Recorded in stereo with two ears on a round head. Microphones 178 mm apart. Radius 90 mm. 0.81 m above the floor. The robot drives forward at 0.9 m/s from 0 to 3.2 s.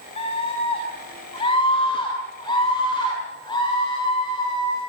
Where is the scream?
30° left (ahead or behind), 6 m; by 4.8 s 20° left (ahead or behind), 8.5 m.